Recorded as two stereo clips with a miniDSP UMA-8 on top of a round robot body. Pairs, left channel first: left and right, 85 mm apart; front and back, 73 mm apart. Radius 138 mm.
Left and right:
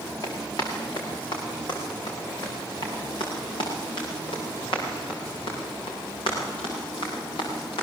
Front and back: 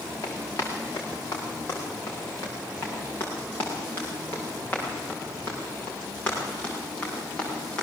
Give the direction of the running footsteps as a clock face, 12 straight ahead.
10 o'clock.